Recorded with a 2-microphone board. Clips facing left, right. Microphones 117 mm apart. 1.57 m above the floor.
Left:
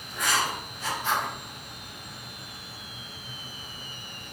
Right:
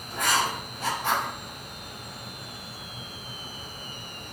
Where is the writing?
55° right (ahead or behind), 4 m.